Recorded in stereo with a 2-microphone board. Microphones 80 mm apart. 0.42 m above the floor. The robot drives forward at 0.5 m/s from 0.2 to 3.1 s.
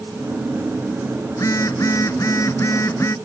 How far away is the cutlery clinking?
I don't hear cutlery clinking.